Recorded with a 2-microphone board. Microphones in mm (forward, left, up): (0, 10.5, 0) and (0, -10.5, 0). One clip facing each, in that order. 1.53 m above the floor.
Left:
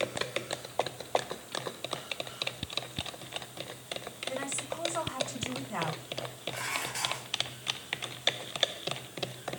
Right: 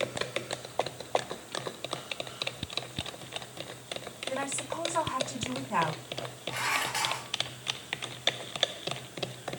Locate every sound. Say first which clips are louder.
4.3 s a woman speaking: right 3 dB; 85° right, 4.5 m
6.5 s dishes clattering: right 6 dB; 80° right, 5 m